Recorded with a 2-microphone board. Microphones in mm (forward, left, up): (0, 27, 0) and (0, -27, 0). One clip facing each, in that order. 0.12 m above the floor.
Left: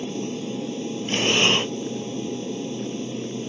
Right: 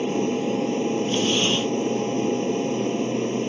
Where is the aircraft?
50° right (ahead or behind).